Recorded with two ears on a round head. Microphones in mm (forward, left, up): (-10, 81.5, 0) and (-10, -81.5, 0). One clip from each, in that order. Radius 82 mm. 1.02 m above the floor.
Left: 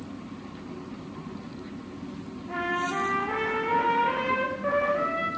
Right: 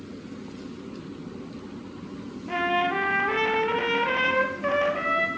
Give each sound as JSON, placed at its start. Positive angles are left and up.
{"t": 2.5, "sound": "a trumpet", "side_deg": -60, "distance_m": 4.0}